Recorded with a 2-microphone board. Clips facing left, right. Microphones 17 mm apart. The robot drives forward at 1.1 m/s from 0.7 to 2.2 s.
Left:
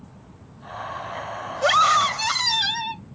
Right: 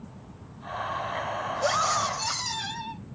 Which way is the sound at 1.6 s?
55° left (ahead or behind).